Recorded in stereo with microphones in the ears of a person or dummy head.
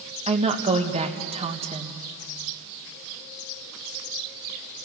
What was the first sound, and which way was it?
A woman speaking, 35° right (ahead or behind).